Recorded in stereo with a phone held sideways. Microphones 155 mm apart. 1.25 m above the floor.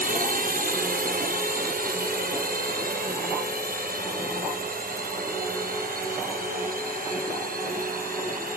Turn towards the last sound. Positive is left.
turn(degrees=-70)  # may be behind; listen again after turning